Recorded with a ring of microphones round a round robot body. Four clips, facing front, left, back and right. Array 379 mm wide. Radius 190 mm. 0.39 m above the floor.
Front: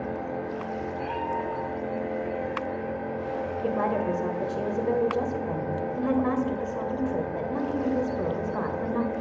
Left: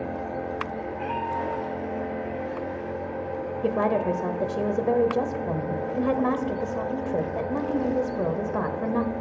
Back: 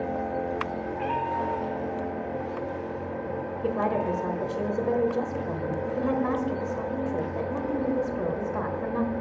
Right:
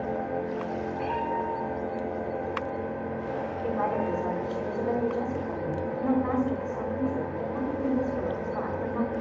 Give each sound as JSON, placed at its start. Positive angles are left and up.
{"t": 0.9, "sound": "a cat meowing", "azimuth_deg": 175, "distance_m": 8.0}
{"t": 3.6, "sound": "a woman speaking", "azimuth_deg": 85, "distance_m": 1.7}